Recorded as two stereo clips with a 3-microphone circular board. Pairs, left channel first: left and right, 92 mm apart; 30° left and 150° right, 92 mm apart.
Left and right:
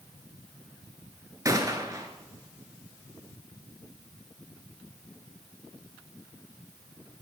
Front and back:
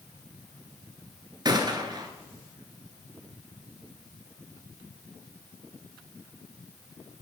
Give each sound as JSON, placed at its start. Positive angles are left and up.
{"t": 1.4, "sound": "a gunshot", "azimuth_deg": -130, "distance_m": 2.0}